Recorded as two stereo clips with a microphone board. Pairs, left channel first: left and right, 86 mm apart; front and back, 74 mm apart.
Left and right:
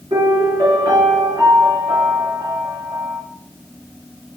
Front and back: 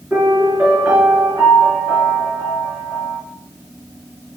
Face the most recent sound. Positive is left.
turn(degrees=-115)